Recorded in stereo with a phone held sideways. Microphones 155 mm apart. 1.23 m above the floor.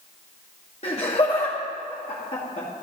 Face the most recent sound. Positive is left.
turn(degrees=45)  # may be behind; listen again after turning